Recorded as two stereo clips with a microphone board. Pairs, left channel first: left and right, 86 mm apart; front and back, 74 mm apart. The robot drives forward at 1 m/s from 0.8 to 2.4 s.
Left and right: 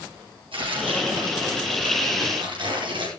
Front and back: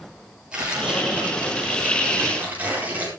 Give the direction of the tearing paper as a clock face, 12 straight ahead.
3 o'clock.